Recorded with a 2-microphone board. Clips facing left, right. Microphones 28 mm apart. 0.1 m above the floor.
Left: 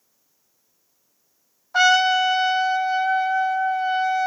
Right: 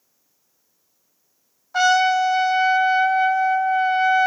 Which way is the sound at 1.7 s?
5° left (ahead or behind).